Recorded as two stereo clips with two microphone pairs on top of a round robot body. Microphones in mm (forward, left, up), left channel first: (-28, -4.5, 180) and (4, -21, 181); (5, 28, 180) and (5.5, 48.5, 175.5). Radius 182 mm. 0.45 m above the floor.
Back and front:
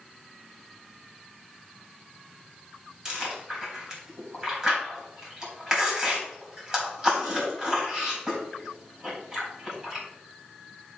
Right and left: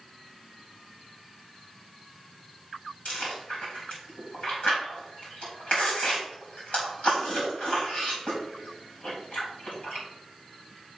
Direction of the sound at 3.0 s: 95° right.